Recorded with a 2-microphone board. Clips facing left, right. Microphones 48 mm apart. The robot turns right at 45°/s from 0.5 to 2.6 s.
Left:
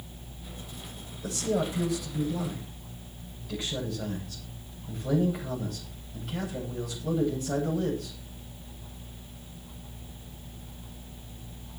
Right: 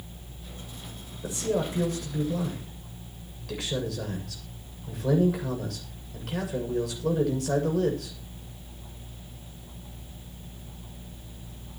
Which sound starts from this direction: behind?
A man speaking, at 1.2 s.